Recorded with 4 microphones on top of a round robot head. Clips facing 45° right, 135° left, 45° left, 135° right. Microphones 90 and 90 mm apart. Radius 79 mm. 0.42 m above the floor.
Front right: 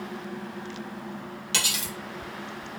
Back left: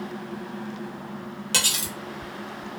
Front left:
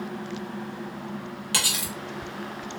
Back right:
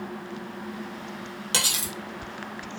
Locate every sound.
1.5 s cutlery clinking: 165° left, 0.9 m